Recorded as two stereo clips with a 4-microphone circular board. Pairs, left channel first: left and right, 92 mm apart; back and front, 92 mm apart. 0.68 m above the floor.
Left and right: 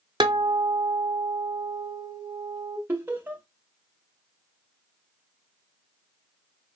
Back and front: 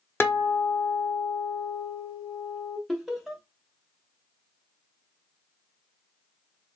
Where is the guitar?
120° right, 0.8 m.